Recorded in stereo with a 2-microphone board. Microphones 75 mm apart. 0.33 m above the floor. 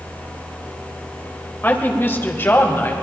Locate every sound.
1.6 s a woman speaking: 30° left (ahead or behind), 1.3 m